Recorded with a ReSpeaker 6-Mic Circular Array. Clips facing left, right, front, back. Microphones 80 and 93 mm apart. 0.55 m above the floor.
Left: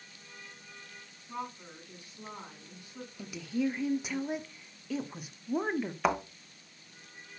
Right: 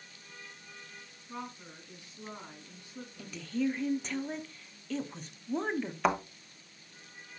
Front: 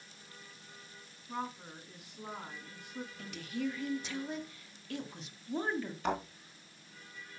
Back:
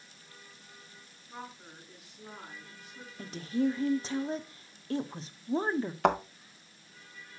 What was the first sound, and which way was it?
A woman speaking, 15° left.